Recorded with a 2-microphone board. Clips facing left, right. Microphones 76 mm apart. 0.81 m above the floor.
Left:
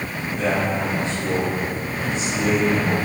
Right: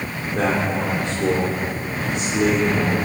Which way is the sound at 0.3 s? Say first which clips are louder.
Right 1 dB; 70° right (ahead or behind).